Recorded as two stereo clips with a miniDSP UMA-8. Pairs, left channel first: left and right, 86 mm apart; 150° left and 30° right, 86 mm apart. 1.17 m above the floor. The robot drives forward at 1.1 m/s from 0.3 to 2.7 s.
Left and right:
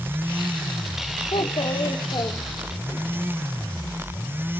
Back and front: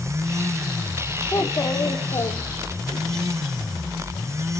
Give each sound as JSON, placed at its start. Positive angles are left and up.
{"t": 1.3, "sound": "a child speaking", "azimuth_deg": 90, "distance_m": 2.0}